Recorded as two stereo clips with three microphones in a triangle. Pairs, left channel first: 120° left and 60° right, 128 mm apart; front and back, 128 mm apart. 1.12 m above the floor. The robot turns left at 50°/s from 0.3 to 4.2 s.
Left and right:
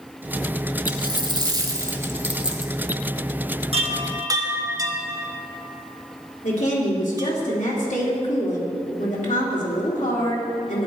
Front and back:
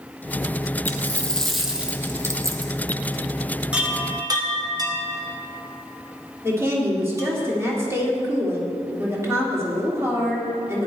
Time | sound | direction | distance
0.9 | a dropped coin | 55° right | 1.3 m
3.7 | a chime | 100° right | 1.2 m
6.4 | a woman speaking | 110° left | 2.5 m